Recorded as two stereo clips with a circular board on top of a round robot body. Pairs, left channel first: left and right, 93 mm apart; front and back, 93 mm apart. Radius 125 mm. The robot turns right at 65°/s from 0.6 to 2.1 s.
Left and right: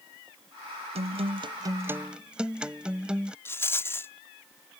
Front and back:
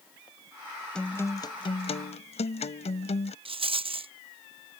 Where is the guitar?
85° right; by 3.4 s 10° right.